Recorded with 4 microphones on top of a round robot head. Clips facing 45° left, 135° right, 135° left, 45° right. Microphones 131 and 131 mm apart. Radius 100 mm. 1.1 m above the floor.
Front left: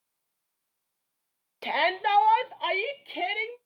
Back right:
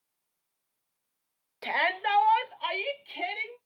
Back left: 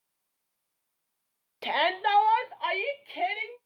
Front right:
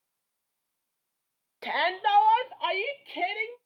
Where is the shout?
90° left, 0.6 m; by 3.6 s 20° left, 1.5 m.